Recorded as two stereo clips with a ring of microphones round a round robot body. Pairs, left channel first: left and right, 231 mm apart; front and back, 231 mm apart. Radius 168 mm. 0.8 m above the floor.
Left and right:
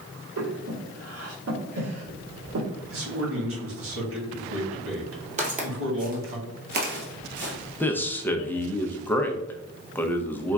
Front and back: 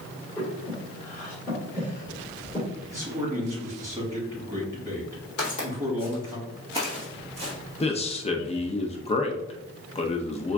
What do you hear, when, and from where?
0.4 s breathing: 80° right, 1.4 m
2.9 s a man speaking: 100° right, 1.7 m
5.4 s footsteps: 35° right, 1.4 m; by 7.5 s 115° right, 1.0 m
7.8 s a man speaking: 15° left, 0.7 m